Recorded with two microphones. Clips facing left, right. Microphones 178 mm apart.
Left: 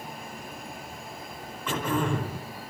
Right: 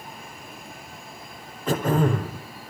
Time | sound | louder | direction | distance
1.7 | throat clearing | right 5 dB | 45° right (ahead or behind) | 4 m